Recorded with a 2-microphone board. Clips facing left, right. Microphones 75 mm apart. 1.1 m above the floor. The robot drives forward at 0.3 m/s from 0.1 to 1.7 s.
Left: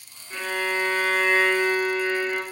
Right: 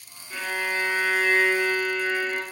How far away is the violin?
About 2 m.